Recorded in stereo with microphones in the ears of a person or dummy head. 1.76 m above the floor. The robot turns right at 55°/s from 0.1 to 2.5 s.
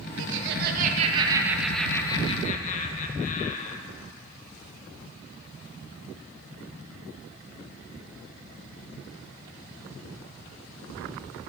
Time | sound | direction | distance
0.2 | laughter | 85° right | 2.5 m